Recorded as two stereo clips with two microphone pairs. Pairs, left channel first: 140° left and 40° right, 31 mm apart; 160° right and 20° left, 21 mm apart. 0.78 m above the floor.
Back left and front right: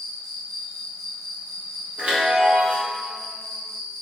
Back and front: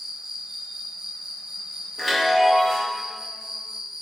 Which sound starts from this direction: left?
An insect, at 0.0 s.